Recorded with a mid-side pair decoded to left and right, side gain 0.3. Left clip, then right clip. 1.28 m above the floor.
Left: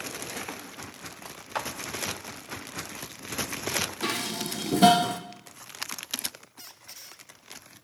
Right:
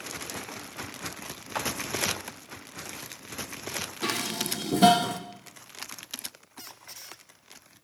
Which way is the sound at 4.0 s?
5° left.